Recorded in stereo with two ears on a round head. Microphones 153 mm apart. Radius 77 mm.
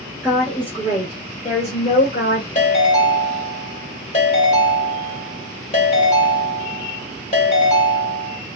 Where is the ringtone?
40° left (ahead or behind), 1.2 m.